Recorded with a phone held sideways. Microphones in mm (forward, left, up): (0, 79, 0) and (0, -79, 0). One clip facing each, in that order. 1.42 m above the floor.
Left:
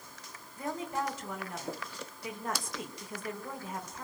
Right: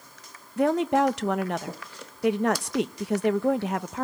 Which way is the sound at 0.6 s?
75° right (ahead or behind).